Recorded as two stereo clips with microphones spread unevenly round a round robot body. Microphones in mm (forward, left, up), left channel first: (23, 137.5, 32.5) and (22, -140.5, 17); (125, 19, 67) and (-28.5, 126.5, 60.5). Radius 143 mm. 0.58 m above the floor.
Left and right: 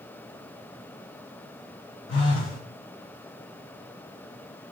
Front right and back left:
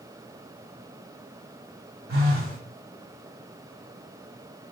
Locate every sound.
2.1 s a phone buzzing: 130° left, 1.6 m